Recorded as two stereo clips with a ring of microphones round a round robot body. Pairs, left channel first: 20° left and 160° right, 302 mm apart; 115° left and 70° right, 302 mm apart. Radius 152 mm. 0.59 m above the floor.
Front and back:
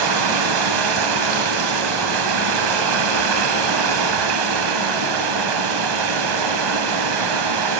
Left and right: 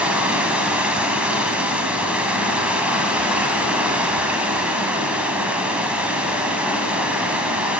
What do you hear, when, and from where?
0.0 s running water: 155° right, 0.9 m